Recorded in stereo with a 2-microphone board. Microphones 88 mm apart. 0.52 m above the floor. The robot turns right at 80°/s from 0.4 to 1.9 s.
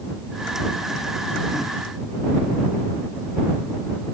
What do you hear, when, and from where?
Only background noise.